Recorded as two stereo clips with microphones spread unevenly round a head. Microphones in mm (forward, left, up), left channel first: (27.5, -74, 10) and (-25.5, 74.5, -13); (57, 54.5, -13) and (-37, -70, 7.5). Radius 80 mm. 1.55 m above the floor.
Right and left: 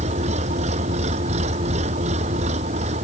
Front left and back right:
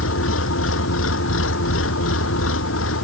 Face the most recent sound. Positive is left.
turn(degrees=60)